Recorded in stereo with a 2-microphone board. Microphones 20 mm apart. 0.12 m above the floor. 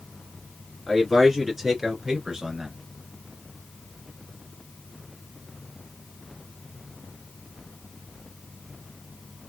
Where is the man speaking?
10° right (ahead or behind), 2 m; by 2.8 s 40° right (ahead or behind), 2 m.